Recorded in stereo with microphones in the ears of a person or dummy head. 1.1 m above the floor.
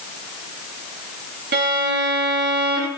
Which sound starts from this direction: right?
A violin, at 1.5 s.